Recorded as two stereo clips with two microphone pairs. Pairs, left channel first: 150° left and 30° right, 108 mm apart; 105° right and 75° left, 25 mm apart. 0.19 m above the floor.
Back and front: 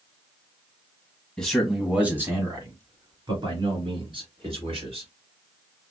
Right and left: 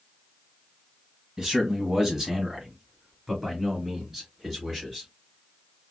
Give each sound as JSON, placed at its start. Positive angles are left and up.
{"t": 1.4, "sound": "a man speaking", "azimuth_deg": 80, "distance_m": 1.4}